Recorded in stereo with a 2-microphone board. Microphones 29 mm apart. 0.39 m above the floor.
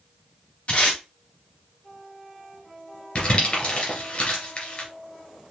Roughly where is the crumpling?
Left.